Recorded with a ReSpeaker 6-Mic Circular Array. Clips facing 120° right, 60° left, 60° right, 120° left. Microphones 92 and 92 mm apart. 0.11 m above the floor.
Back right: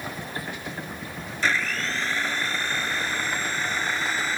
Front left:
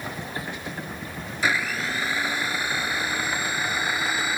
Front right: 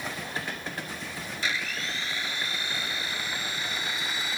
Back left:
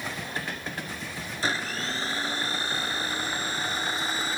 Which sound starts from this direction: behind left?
A blender, at 1.4 s.